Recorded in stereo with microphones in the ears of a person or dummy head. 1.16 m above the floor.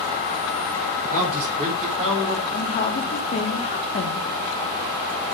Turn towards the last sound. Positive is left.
turn(degrees=40)  # may be behind; listen again after turning